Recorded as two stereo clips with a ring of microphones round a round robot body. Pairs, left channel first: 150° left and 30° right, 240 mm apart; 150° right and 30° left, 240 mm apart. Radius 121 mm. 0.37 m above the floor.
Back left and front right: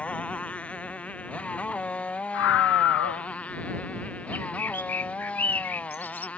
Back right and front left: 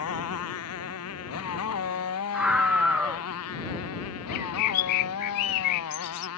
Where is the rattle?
No rattle in this recording.